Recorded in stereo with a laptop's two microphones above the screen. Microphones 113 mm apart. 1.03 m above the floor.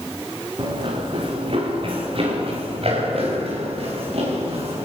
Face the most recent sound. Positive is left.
turn(degrees=-60)  # may be behind; listen again after turning